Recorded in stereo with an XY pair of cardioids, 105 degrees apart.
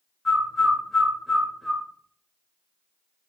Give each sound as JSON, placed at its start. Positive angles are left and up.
{"t": 0.2, "sound": "a bird", "azimuth_deg": 5, "distance_m": 0.8}